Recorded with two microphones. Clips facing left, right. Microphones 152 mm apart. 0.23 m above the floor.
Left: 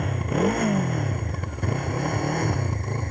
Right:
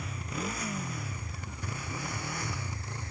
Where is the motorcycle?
70° left (ahead or behind); by 3.1 s 60° left (ahead or behind).